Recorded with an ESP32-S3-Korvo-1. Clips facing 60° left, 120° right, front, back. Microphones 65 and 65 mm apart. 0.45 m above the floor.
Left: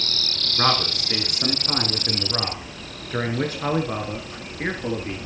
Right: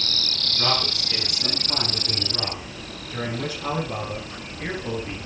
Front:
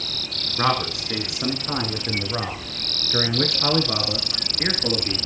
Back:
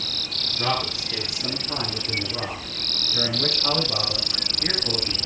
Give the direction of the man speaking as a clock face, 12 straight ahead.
11 o'clock.